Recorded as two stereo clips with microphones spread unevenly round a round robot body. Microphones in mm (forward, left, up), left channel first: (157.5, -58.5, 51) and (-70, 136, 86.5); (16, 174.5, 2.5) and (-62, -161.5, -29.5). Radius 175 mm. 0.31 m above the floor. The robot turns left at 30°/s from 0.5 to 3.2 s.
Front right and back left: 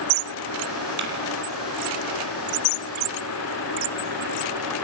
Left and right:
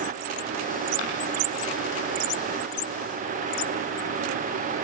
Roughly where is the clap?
Left.